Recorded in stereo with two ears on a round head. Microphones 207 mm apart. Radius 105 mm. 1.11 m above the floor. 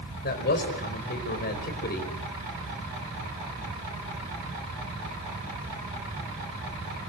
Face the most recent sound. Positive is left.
turn(degrees=40)  # may be behind; listen again after turning